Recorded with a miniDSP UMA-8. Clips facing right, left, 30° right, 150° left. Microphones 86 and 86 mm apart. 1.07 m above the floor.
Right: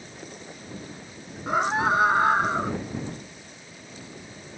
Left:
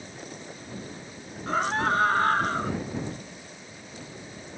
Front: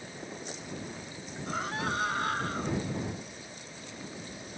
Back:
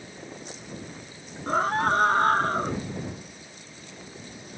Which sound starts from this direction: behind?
A scream, at 1.5 s.